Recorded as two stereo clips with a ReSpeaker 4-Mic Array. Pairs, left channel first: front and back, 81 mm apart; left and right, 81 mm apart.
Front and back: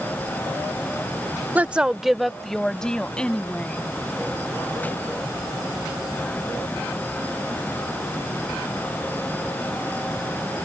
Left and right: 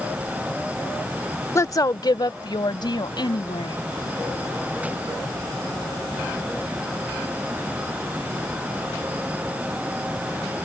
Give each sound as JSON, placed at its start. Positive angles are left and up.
{"t": 1.6, "sound": "a woman speaking", "azimuth_deg": 120}